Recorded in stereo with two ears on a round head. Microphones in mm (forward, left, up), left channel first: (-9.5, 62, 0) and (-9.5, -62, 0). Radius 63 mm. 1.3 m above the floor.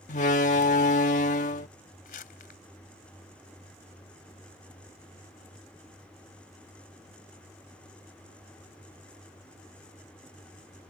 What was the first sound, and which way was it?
A door slam, 55° left (ahead or behind).